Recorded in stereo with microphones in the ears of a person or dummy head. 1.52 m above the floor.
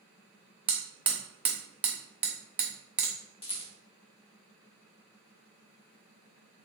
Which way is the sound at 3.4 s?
25° left (ahead or behind).